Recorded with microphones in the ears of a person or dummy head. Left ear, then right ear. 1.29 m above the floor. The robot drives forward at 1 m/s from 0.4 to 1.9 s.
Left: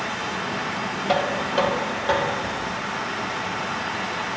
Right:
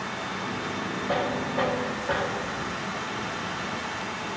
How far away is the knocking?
About 1.4 m.